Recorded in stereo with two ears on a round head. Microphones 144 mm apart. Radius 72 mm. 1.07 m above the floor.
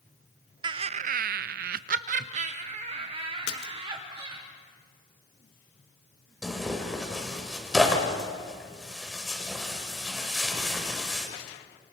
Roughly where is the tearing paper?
Centre.